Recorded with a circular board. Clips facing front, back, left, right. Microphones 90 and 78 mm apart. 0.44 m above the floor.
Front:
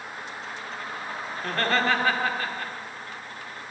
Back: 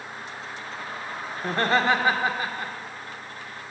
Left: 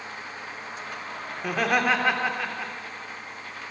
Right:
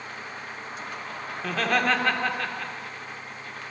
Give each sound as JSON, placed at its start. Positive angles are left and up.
{"t": 1.4, "sound": "laughter", "azimuth_deg": 150, "distance_m": 0.7}